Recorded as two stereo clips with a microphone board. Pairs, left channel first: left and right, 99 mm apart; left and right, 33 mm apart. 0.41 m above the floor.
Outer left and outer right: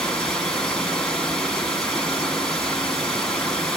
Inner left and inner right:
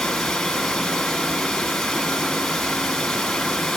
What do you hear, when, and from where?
0.0 s running water: 5° left (ahead or behind), 4 m